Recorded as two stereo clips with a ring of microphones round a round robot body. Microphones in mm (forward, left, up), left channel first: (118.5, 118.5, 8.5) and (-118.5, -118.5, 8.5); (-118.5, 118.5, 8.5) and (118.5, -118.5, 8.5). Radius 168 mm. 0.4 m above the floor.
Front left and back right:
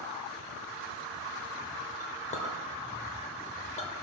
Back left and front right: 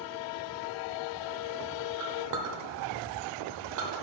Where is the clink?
20° right, 0.7 m.